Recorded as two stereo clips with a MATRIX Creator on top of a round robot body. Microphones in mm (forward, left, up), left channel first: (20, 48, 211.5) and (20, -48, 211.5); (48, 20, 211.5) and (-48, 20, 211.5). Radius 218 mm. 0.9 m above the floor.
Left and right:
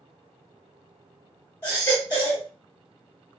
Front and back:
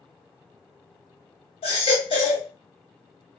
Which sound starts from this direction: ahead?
A baby crying, at 1.6 s.